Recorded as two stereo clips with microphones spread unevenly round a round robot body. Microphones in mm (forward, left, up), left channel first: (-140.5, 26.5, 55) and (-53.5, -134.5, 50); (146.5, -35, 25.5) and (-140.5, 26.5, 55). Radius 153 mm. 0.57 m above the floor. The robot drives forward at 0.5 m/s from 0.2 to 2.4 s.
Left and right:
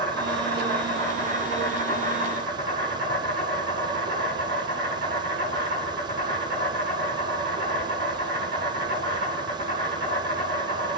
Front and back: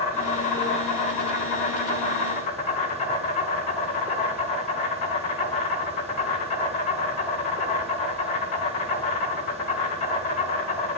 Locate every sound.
0.0 s an insect: 20° right, 5.5 m; by 11.0 s 30° right, 4.5 m